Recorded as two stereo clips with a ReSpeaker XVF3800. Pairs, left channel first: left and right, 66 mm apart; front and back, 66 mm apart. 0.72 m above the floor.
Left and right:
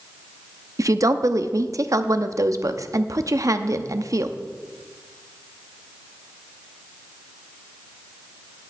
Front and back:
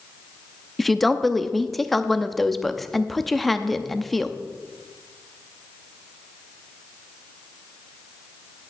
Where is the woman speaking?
85° right, 0.7 m.